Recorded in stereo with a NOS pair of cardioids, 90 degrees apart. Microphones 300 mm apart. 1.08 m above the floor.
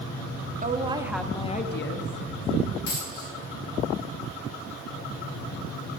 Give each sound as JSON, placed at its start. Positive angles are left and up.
{"t": 0.6, "sound": "a woman speaking", "azimuth_deg": -25, "distance_m": 1.6}
{"t": 2.9, "sound": "a dropped coin", "azimuth_deg": 50, "distance_m": 5.0}